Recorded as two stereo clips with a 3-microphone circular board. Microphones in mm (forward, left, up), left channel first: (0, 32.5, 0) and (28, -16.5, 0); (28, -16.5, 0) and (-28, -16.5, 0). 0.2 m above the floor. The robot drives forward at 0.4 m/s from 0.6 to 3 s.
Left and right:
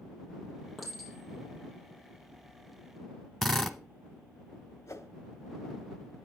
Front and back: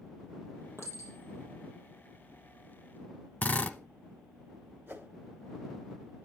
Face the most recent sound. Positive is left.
turn(degrees=135)